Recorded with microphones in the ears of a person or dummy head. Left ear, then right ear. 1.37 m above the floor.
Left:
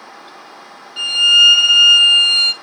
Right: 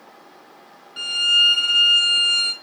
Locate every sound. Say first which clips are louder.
1.0 s a violin: left 7 dB; 25° left (ahead or behind), 0.6 m